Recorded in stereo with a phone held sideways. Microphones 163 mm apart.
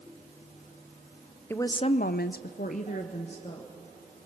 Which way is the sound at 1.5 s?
15° left (ahead or behind).